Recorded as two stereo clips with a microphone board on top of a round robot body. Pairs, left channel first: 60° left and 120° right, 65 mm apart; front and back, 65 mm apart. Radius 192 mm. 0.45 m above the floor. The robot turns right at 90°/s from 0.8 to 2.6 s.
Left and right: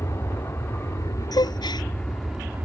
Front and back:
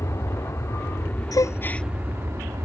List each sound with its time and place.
0.0 s an aircraft: 25° left; by 2.6 s straight behind
1.3 s a gasp: 30° left; by 1.9 s 85° left